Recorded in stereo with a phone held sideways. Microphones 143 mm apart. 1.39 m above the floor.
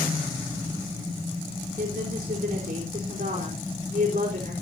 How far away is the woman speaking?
About 4.5 m.